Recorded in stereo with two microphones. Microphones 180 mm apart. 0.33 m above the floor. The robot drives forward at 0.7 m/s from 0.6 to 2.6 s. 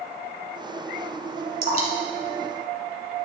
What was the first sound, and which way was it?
Dripping, 55° right (ahead or behind).